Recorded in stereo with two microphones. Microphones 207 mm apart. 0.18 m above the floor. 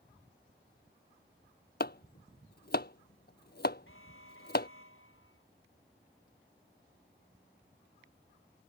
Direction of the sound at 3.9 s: 75° left (ahead or behind).